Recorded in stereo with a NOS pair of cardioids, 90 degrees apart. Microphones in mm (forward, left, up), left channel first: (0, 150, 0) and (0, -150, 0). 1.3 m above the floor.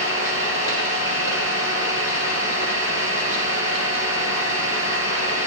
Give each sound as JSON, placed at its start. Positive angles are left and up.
{"t": 0.0, "sound": "an engine running", "azimuth_deg": 60, "distance_m": 8.5}